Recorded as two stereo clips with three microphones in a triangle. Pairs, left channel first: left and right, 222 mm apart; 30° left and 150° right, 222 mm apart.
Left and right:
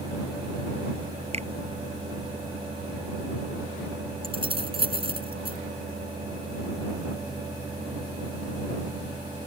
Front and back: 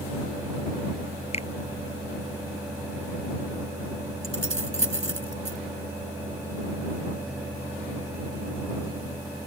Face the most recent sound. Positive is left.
turn(degrees=-155)